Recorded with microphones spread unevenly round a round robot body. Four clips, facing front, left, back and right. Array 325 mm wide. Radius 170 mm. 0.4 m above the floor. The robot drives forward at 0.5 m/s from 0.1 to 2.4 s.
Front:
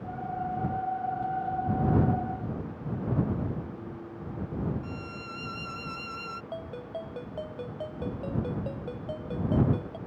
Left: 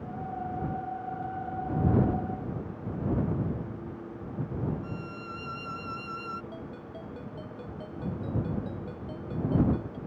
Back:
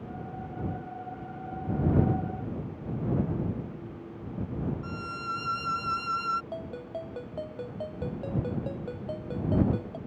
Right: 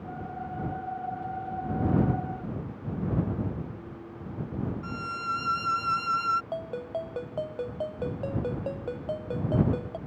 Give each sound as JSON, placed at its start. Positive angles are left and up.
{"t": 4.8, "sound": "a violin", "azimuth_deg": -105}
{"t": 6.5, "sound": "a ringtone", "azimuth_deg": -85}